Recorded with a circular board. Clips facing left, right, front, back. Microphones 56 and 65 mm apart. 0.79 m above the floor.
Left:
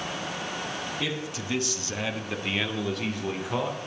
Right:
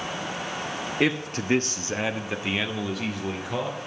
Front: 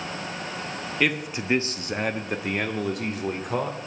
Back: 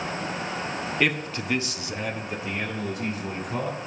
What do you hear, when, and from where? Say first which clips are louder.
1.0 s a man speaking: right 7 dB, front 1 dB; 90° right, 0.9 m; by 3.8 s 5° left, 2.5 m